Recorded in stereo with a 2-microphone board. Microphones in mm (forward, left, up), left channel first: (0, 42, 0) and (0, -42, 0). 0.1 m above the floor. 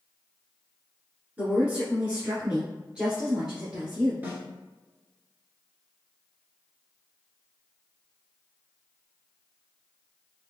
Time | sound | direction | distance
1.4 | a woman speaking | 20° right (ahead or behind) | 1.7 m
4.2 | a snare drum | 20° right (ahead or behind) | 1.2 m